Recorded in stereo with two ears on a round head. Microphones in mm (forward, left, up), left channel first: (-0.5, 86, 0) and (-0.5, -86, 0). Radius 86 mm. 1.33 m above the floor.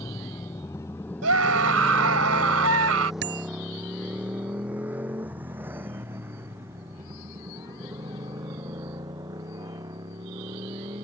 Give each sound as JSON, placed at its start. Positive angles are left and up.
{"t": 0.0, "sound": "a motorcycle", "side_deg": 20}
{"t": 1.2, "sound": "a scream", "side_deg": -85}
{"t": 3.2, "sound": "a bicycle bell", "side_deg": -60}